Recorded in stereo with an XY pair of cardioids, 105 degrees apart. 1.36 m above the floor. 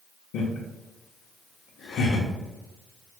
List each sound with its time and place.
0.3 s laughter: 65° left, 0.9 m